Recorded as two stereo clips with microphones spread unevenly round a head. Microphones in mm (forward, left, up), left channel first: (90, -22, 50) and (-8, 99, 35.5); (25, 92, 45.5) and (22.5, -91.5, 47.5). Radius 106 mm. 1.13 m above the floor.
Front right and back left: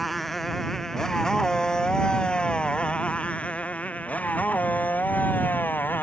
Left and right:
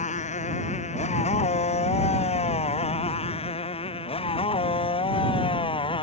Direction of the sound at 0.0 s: 35° left.